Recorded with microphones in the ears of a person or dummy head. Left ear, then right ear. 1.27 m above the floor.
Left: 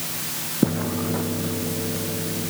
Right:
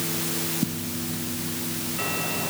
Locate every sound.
Only background noise.